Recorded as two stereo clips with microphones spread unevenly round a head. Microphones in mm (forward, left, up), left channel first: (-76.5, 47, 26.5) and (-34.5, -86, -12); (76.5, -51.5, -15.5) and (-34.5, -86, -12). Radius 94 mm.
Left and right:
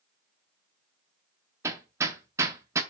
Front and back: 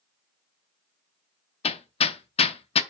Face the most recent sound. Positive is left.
turn(degrees=10)